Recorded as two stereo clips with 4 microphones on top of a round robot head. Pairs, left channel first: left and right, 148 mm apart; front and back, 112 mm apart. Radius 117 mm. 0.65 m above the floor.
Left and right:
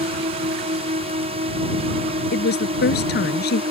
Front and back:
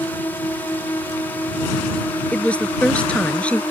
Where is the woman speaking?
80° left.